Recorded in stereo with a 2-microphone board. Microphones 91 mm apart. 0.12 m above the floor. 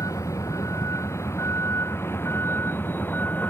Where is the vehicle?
35° left (ahead or behind); by 3.5 s 20° left (ahead or behind).